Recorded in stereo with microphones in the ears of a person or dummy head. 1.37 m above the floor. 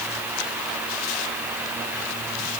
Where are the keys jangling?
I don't hear keys jangling.